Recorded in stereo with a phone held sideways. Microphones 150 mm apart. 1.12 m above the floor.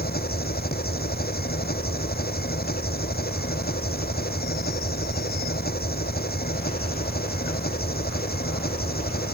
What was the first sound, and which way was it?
An engine running, 85° left.